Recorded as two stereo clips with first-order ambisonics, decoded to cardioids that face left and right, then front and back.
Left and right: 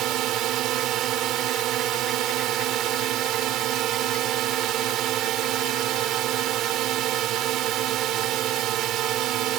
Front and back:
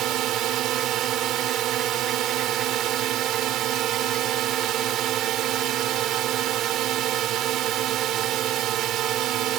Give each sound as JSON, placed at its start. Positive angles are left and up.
{"t": 0.0, "sound": "a drone", "azimuth_deg": -135}